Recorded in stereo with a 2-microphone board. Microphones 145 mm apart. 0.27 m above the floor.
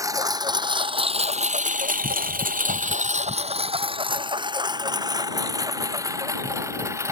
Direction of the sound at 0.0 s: 25° right (ahead or behind).